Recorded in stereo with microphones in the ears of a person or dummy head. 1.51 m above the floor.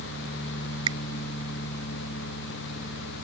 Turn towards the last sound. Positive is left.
turn(degrees=-25)  # may be behind; listen again after turning